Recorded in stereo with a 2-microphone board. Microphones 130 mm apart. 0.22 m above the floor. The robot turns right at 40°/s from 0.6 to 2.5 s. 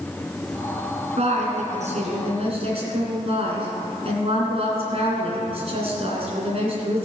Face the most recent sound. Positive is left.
turn(degrees=-60)